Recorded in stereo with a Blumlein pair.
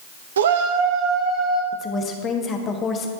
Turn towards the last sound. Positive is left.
turn(degrees=25)